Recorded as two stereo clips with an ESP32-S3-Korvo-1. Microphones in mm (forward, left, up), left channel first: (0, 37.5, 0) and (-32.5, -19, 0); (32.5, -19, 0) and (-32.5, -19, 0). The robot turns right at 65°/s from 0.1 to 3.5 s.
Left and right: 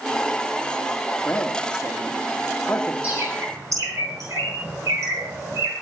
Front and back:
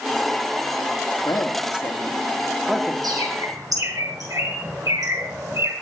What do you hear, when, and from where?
1.2 s a man speaking: straight ahead, 1.6 m; by 2.9 s 110° left, 1.6 m
3.0 s a bird: 170° left, 8.5 m; by 5.7 s 160° right, 8.5 m